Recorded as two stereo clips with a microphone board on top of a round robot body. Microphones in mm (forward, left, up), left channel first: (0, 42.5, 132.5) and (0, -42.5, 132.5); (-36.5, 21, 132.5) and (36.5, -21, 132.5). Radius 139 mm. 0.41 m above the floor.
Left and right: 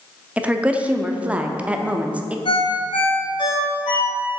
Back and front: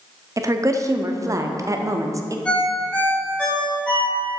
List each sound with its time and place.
0.4 s a woman speaking: 25° right, 0.8 m
2.5 s a ringtone: 75° left, 2.0 m